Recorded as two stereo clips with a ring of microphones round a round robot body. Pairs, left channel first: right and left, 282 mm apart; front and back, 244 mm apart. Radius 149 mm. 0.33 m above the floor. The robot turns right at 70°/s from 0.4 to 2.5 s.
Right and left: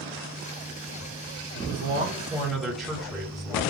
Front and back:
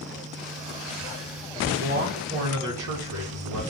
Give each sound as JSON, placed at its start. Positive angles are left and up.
{"t": 1.6, "sound": "a man speaking", "azimuth_deg": 115, "distance_m": 2.0}